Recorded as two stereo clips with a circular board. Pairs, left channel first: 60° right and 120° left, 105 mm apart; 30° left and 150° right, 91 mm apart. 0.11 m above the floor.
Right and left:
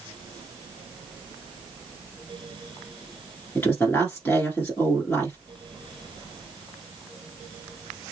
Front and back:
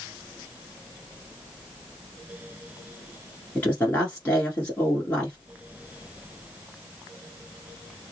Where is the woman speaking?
15° right, 1.3 m.